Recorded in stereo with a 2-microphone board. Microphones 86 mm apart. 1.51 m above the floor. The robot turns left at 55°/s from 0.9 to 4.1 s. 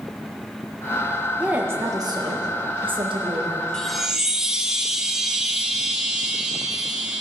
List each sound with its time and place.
1.4 s a woman speaking: 15° right, 1.6 m; by 3.6 s 135° right, 1.6 m
3.7 s a chime: 5° left (ahead or behind), 0.7 m; by 7.2 s 5° right (ahead or behind), 0.7 m